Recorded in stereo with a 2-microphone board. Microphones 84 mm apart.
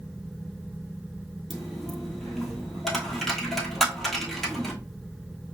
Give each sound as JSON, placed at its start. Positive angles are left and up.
{"t": 1.5, "sound": "a dropped coin", "side_deg": 5, "distance_m": 1.0}